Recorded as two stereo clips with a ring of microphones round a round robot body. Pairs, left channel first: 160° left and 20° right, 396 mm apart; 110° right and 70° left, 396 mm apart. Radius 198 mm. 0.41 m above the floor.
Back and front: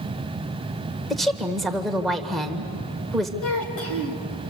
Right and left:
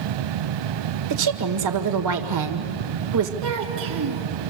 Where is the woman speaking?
70° left, 1.8 m.